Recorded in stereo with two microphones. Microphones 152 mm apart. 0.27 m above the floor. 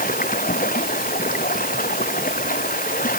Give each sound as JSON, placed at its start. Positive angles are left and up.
{"t": 0.0, "sound": "running water", "side_deg": 60}